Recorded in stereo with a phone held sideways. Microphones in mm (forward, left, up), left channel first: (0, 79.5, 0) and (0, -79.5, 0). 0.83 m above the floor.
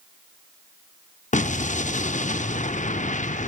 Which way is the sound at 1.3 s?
50° left (ahead or behind).